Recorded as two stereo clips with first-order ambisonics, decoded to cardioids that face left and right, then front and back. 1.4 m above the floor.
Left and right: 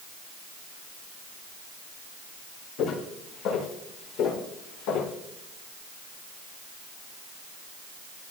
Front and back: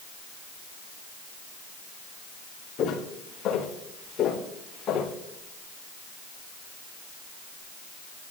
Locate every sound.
2.8 s footsteps: 55° left, 6.5 m; by 5.1 s 65° left, 4 m